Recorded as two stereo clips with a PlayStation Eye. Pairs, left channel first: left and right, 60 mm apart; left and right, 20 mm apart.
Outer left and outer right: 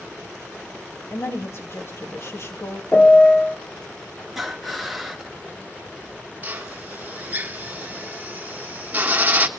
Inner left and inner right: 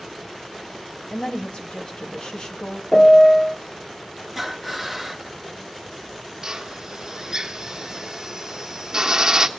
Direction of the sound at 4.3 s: Centre (ahead or behind).